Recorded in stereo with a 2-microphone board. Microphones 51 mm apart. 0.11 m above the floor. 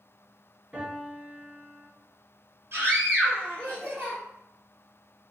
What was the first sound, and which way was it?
A piano, 10° right (ahead or behind).